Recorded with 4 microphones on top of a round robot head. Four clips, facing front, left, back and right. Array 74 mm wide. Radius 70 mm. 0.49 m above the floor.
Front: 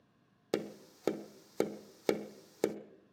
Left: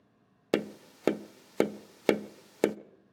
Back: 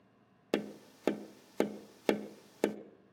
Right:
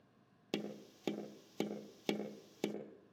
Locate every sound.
0.5 s tapping: 90° left, 0.8 m